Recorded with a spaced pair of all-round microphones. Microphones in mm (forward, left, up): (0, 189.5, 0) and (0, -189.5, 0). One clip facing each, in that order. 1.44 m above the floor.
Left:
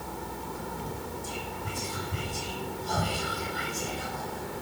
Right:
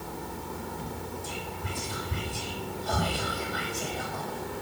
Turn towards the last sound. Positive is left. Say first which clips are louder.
# even
turn(degrees=-75)  # may be behind; listen again after turning